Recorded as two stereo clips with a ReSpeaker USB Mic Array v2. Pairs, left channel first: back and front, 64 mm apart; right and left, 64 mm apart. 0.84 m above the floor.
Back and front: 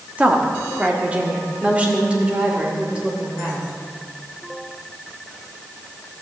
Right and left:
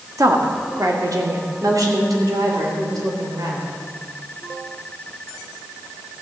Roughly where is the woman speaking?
Left.